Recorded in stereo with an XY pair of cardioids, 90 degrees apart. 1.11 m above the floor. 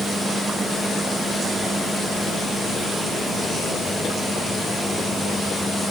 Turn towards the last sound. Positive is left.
No sound to turn to.